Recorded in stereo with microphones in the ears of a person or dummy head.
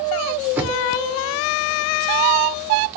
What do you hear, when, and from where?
0.6 s knocking: 15° right (ahead or behind), 0.8 m